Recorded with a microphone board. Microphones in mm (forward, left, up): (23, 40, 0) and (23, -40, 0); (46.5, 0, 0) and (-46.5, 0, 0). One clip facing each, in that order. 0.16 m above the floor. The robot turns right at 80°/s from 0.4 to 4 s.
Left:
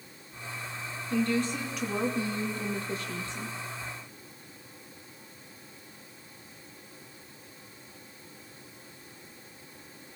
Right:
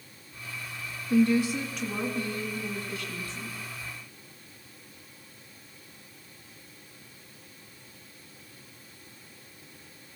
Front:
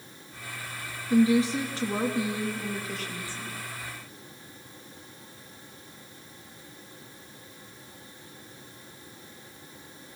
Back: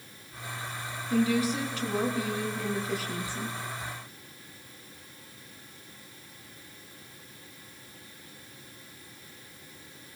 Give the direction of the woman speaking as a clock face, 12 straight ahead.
2 o'clock.